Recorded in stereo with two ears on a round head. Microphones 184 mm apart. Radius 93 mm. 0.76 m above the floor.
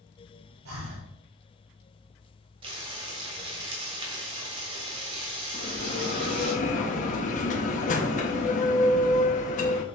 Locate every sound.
0.7 s breathing: 75° right (ahead or behind), 3.5 m
2.6 s frying: 25° right (ahead or behind), 1.6 m
5.5 s a bell: 40° left (ahead or behind), 1.1 m